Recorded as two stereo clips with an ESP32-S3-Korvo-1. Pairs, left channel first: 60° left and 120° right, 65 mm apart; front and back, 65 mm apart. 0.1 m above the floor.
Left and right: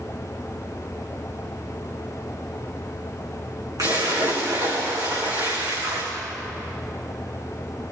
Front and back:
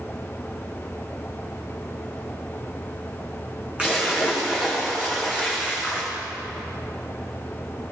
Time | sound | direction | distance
3.8 | a splash | 105° right | 7 m